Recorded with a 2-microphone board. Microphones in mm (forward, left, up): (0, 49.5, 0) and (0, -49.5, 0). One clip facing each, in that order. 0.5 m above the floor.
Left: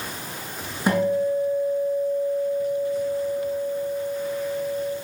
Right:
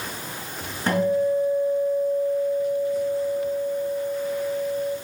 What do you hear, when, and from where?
0.9 s a guitar: 10° left (ahead or behind), 7 m